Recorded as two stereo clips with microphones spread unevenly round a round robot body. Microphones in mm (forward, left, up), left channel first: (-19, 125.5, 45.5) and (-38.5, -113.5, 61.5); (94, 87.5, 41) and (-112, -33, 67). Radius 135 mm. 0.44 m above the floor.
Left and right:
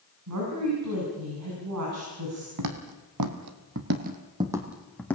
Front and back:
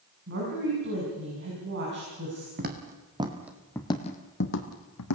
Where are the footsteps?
95° right, 2 m; by 5.2 s straight ahead, 1.9 m.